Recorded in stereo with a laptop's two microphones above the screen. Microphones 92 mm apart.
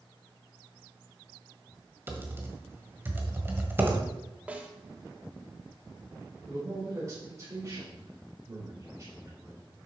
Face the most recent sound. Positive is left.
turn(degrees=-35)  # may be behind; listen again after turning